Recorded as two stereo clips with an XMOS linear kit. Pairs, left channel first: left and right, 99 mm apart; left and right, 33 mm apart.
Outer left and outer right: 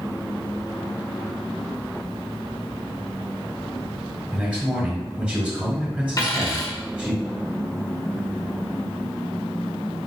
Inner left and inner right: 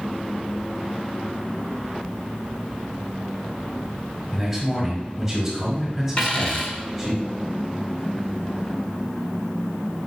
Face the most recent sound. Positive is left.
turn(degrees=40)  # may be behind; listen again after turning